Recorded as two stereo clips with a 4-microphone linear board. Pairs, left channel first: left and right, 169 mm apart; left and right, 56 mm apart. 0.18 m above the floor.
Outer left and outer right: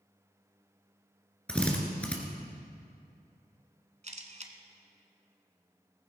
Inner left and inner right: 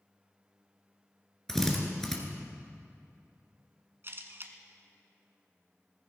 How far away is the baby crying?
I don't hear a baby crying.